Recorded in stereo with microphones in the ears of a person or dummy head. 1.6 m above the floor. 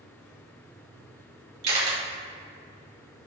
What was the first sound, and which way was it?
A camera shutter, 35° right (ahead or behind).